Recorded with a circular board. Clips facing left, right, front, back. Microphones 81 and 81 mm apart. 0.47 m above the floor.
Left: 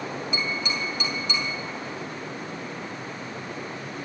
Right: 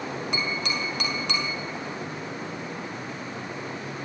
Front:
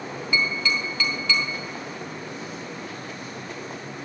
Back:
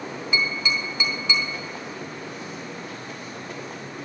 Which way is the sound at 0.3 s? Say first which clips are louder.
Even, front 1 dB; 110° right.